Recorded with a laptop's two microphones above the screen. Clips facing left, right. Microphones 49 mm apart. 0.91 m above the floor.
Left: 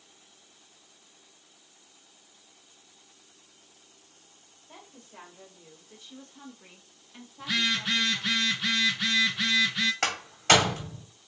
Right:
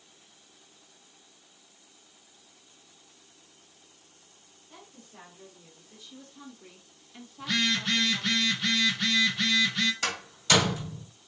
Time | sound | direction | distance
4.7 | a woman speaking | 50° left (ahead or behind) | 1.8 m
7.4 | a phone buzzing | 5° left (ahead or behind) | 0.6 m
10.0 | a door slam | 65° left (ahead or behind) | 1.5 m